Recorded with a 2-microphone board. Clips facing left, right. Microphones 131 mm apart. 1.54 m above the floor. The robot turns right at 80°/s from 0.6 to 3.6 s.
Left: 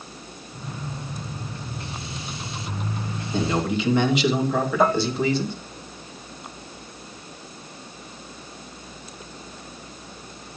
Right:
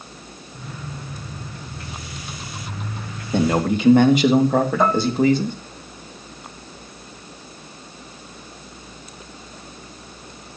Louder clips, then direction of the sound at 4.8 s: Right 1 dB; 5° left (ahead or behind).